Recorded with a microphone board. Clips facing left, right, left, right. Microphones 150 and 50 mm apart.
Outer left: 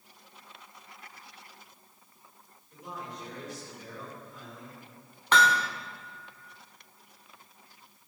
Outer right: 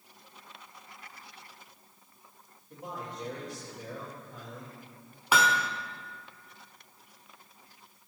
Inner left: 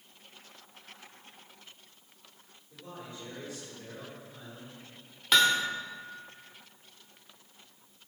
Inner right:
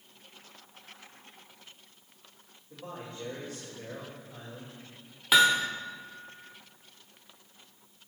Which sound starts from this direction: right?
A man speaking, at 2.7 s.